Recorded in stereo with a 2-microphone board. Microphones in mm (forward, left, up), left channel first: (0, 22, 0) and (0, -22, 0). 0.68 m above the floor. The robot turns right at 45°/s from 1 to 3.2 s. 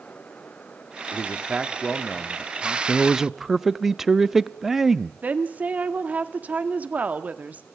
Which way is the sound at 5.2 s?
40° right (ahead or behind).